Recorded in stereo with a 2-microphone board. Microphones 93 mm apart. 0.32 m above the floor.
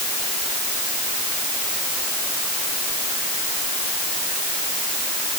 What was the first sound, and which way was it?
Only background noise.